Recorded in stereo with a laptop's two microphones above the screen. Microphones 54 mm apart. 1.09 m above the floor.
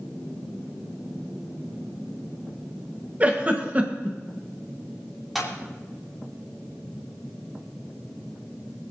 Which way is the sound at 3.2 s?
30° right (ahead or behind).